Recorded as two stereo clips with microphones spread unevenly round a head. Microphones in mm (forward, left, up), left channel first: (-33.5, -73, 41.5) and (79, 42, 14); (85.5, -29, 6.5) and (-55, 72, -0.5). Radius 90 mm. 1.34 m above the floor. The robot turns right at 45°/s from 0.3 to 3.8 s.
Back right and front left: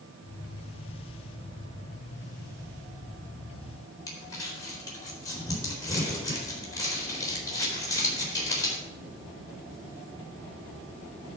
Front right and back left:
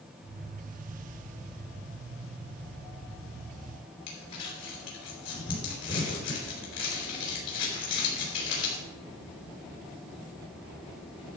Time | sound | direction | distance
4.1 | crumpling | 65° right | 4 m